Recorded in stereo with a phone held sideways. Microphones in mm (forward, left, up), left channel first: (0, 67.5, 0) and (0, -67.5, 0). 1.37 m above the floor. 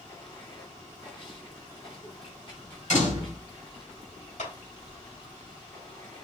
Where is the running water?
40° left (ahead or behind), 2 m.